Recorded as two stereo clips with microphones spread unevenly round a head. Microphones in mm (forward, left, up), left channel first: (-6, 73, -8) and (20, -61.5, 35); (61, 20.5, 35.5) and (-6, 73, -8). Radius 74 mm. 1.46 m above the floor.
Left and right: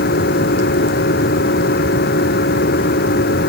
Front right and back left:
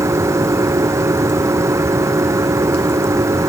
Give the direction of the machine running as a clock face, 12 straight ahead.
9 o'clock.